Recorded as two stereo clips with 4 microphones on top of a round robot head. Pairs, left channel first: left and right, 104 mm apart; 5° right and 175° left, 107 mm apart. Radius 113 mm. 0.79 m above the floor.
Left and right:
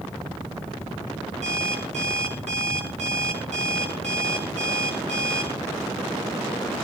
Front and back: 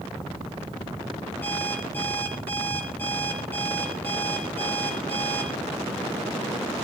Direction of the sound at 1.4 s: 80° right.